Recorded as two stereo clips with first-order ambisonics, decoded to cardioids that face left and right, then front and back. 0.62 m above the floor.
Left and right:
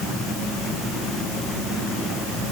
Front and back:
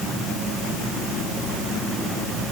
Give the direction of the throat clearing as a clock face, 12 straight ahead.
No throat clearing in this recording.